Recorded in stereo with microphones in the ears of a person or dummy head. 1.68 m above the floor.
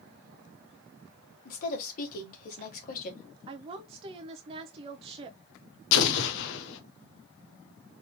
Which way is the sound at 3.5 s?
35° right (ahead or behind).